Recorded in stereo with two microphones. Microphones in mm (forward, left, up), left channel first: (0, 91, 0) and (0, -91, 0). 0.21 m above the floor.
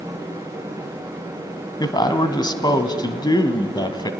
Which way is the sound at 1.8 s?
25° left (ahead or behind).